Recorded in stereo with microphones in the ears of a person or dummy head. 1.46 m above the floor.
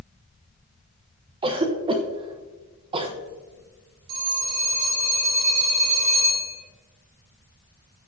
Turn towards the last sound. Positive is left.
turn(degrees=-85)